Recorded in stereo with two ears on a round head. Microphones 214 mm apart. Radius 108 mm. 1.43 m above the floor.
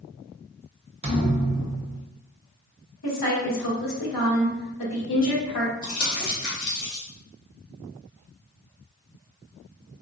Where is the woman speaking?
80° left, 1.5 m.